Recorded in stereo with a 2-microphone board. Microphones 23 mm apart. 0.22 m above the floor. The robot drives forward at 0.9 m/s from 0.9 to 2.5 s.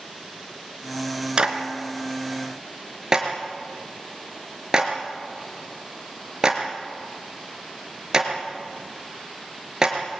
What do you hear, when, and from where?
1.4 s a clap: 40° right (ahead or behind), 3 m; by 10.0 s 30° right (ahead or behind), 3.5 m